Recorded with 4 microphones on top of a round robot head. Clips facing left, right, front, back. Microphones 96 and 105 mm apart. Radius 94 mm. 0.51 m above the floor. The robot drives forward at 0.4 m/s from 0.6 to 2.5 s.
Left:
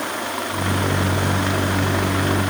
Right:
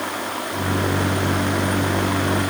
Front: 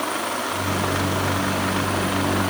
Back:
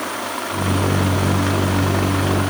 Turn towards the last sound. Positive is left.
No sound to turn to.